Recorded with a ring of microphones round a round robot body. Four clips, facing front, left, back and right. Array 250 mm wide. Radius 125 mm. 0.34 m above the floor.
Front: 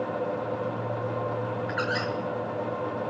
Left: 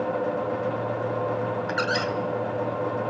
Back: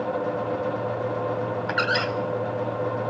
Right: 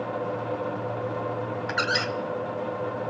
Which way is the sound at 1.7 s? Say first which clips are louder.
Right 1 dB, back 5 dB; 170° right.